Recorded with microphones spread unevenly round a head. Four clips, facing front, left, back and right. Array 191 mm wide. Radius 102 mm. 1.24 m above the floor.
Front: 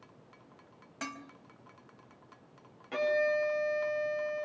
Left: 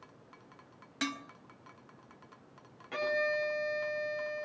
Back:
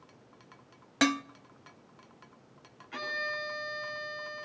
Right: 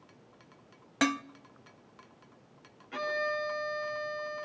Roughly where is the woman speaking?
No woman speaking in this recording.